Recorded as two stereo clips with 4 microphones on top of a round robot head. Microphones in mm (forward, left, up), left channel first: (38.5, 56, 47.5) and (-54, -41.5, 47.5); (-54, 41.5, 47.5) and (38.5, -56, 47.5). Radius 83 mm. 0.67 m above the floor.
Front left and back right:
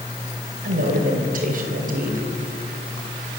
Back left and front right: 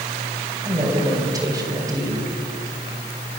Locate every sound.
0.6 s a woman speaking: 110° right, 3 m